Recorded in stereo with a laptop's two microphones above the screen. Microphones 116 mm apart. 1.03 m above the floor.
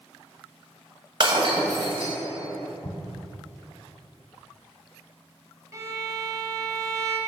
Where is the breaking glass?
50° right (ahead or behind), 1.6 m.